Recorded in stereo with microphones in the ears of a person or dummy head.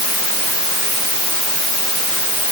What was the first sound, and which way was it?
Only background noise.